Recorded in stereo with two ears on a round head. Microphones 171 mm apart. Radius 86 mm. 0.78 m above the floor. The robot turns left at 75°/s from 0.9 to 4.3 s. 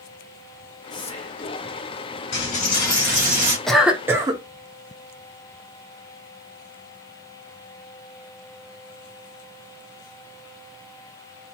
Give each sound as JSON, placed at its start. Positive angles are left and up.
{"t": 0.9, "sound": "whispering", "azimuth_deg": 155, "distance_m": 0.8}
{"t": 2.3, "sound": "a dropped coin", "azimuth_deg": 55, "distance_m": 1.6}
{"t": 3.7, "sound": "a cough", "side_deg": 5, "distance_m": 0.5}